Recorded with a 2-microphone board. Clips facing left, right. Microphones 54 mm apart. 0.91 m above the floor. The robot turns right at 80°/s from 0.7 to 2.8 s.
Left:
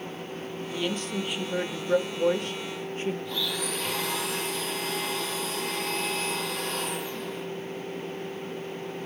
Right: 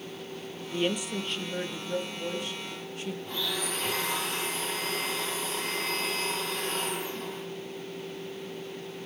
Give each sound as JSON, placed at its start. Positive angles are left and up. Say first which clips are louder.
{"t": 0.7, "sound": "a woman speaking", "louder": "right 2 dB", "azimuth_deg": -35, "distance_m": 1.3}
{"t": 3.2, "sound": "a blender", "louder": "left 2 dB", "side_deg": -40, "distance_m": 9.5}